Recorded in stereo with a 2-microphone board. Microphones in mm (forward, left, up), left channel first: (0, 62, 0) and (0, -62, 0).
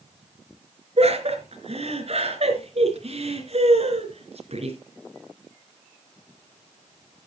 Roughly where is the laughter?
Right.